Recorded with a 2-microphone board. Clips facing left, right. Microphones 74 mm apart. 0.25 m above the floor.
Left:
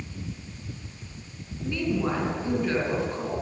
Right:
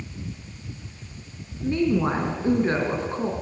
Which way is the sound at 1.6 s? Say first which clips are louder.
Right 5 dB; 35° right (ahead or behind).